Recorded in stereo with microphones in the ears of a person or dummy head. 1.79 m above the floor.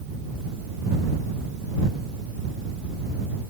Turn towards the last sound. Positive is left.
No sound to turn to.